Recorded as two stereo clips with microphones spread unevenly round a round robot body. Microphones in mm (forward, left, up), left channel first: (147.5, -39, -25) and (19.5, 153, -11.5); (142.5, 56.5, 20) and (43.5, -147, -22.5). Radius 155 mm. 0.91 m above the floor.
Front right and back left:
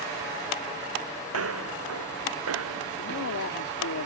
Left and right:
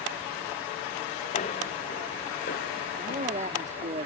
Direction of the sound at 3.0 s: 65° right.